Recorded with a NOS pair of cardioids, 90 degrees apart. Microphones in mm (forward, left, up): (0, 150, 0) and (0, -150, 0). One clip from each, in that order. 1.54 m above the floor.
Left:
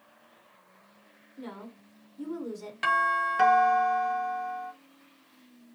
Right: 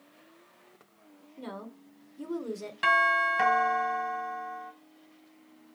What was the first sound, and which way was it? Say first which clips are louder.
A woman speaking: right 1 dB; 10° right.